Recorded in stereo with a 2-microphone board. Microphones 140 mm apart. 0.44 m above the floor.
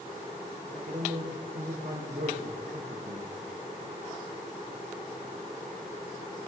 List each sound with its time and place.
0.7 s a man speaking: 75° right (ahead or behind), 6 m